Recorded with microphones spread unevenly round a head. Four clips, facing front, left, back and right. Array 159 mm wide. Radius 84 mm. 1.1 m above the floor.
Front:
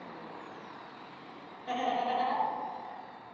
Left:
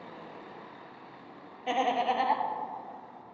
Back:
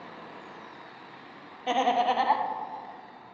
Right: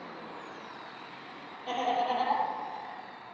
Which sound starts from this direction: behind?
Laughter, at 1.7 s.